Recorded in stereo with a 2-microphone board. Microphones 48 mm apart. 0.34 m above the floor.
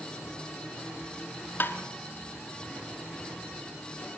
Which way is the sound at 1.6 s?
45° left (ahead or behind).